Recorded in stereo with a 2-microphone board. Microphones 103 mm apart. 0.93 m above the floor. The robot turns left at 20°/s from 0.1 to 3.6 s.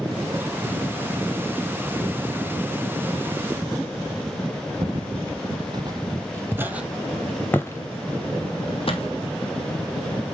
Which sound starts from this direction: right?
Footsteps, at 4.8 s.